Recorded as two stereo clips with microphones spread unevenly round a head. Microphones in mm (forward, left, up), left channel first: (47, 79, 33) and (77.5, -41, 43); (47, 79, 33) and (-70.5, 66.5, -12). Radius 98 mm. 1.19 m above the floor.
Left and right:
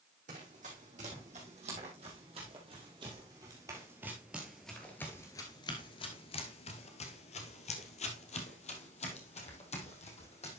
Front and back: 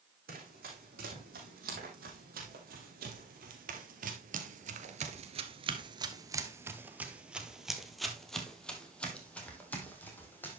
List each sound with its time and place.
0.3 s running footsteps: 125° right, 3.5 m; by 10.6 s 70° left, 3.5 m